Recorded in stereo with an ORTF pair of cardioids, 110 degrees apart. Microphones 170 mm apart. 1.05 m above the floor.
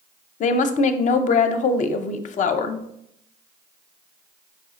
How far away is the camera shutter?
No camera shutter in this recording.